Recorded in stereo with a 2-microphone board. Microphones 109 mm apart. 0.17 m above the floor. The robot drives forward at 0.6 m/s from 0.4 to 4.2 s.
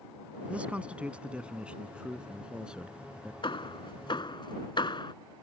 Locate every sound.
0.5 s a man speaking: 10° right (ahead or behind); by 3.3 s 5° right (ahead or behind)
3.4 s hammering: 50° left (ahead or behind)